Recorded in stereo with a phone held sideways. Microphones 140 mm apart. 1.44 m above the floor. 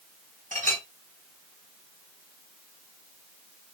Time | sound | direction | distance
0.5 | a clink | 60° right (ahead or behind) | 2 m